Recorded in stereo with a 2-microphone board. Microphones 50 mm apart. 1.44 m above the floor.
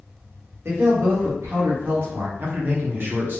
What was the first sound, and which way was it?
A man speaking, 60° right (ahead or behind).